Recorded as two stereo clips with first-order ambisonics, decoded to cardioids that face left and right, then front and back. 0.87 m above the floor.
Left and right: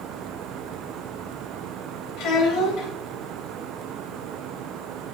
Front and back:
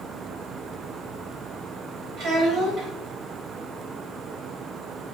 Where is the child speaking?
120° left, 4 m.